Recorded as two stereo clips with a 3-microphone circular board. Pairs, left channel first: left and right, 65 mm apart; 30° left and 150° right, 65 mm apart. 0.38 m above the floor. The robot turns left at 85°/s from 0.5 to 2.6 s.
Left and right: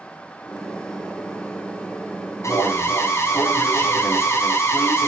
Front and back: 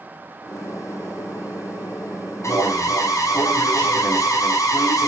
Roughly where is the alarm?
Ahead left.